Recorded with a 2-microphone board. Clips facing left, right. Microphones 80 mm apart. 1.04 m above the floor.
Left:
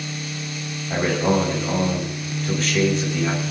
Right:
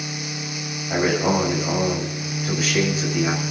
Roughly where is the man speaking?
Centre.